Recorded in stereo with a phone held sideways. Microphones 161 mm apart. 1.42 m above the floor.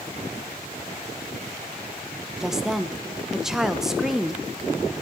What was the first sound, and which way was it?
A woman speaking, centre (ahead or behind).